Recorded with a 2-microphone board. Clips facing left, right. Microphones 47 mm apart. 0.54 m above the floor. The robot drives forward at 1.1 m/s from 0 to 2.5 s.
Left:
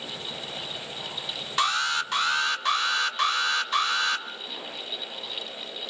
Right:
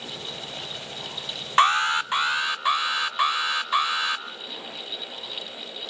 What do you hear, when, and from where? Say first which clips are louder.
1.6 s an alarm: right 6 dB; 35° right (ahead or behind), 0.7 m; by 4.2 s 15° right (ahead or behind), 1.5 m